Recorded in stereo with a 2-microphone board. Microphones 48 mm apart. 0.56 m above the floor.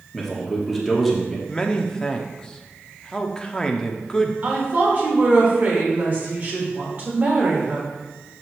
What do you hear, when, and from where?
0.1 s a man speaking: centre (ahead or behind), 1.1 m
1.5 s a man speaking: 15° left (ahead or behind), 0.6 m
4.4 s a woman speaking: 35° right (ahead or behind), 2.0 m